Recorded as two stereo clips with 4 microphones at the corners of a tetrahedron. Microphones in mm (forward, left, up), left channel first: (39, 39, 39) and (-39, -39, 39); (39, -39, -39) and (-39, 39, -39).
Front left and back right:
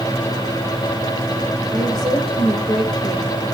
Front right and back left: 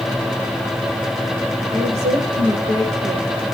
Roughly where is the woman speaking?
Behind left.